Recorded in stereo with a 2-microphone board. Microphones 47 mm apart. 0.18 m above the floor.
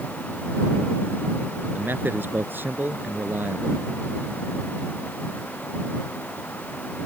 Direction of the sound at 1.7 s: 50° right (ahead or behind).